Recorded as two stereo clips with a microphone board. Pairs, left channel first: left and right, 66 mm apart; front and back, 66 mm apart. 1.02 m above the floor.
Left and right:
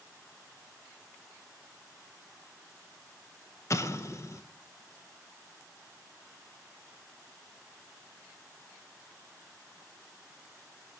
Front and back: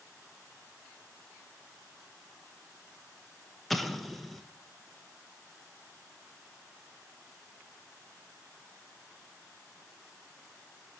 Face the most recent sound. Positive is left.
turn(degrees=85)